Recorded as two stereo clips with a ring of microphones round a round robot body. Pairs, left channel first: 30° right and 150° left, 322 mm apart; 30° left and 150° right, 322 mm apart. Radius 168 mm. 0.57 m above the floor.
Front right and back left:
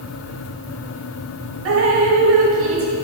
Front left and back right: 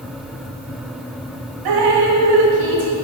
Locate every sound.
1.6 s dripping: 160° right, 1.2 m